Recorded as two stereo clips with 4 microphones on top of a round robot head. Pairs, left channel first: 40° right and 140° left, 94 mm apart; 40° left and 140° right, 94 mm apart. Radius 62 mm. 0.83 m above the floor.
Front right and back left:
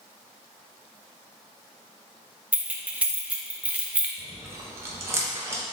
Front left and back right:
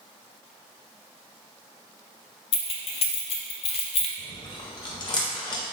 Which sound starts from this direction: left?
Chewing, at 4.2 s.